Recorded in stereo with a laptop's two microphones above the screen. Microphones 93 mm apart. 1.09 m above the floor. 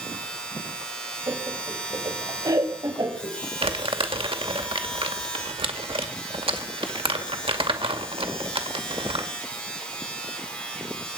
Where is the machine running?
10° left (ahead or behind), 7.5 m.